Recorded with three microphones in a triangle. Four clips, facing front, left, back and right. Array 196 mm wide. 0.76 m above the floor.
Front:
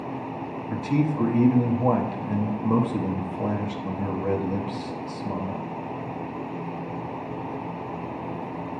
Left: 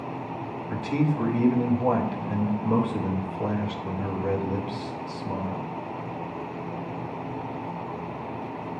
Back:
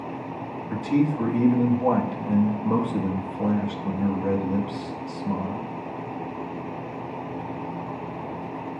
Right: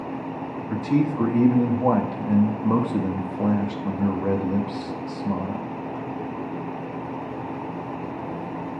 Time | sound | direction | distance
0.7 | a man speaking | 85° right | 1.0 m